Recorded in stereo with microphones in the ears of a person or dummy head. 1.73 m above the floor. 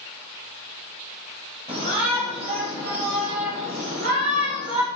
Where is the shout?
40° right (ahead or behind), 5.5 m; by 4.9 s 80° right, 3.5 m.